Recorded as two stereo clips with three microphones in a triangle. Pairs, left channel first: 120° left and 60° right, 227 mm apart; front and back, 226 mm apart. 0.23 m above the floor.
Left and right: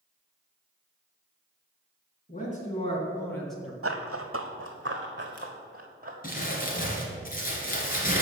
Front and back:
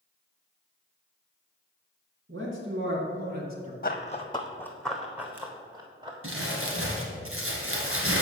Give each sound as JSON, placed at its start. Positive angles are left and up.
{"t": 2.3, "sound": "a man speaking", "azimuth_deg": 165, "distance_m": 2.5}
{"t": 3.8, "sound": "running footsteps", "azimuth_deg": -50, "distance_m": 0.8}
{"t": 6.2, "sound": "crumpling", "azimuth_deg": 170, "distance_m": 1.8}